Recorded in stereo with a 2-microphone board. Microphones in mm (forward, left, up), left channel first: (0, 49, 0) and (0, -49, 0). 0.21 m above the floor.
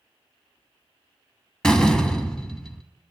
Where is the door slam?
5° left (ahead or behind), 0.9 m.